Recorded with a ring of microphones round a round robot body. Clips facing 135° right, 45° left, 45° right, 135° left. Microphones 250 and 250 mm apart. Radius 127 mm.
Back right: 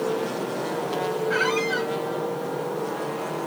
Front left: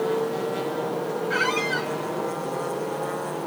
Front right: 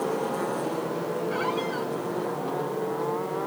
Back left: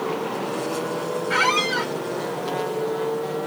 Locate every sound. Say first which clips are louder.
1.3 s a squeak: back right 2 dB, back left 2 dB; 135° left